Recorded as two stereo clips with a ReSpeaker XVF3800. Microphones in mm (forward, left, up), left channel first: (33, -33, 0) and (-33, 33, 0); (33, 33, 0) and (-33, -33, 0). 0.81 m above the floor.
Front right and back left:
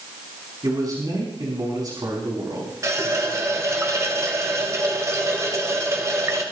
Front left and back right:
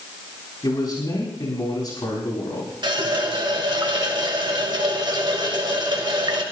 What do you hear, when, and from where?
0.6 s a man speaking: 90° left, 6 m
2.8 s a running tap: 170° right, 2 m